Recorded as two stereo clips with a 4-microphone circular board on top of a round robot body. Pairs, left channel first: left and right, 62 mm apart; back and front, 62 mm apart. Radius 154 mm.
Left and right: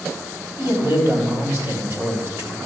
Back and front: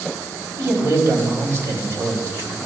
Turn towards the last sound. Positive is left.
turn(degrees=-45)